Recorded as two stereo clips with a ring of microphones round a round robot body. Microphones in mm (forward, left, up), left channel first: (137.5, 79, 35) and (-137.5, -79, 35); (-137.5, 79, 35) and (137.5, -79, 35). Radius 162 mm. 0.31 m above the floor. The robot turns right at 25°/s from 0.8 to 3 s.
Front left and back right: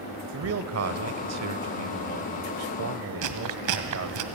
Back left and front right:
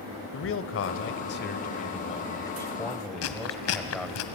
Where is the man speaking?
175° right, 1.2 m; by 4.2 s 120° right, 1.2 m.